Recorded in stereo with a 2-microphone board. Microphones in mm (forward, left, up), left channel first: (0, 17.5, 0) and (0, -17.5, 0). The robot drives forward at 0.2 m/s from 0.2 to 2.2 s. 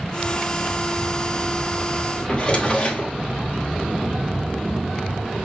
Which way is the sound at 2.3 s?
35° left (ahead or behind).